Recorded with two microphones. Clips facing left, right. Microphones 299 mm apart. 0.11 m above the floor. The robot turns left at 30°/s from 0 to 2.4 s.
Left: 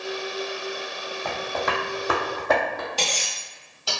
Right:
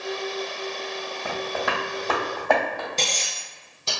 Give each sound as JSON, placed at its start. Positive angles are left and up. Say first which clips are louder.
{"t": 1.2, "sound": "tapping", "louder": "even", "side_deg": -10, "distance_m": 0.9}
{"t": 3.0, "sound": "cutlery clinking", "louder": "even", "side_deg": -25, "distance_m": 1.5}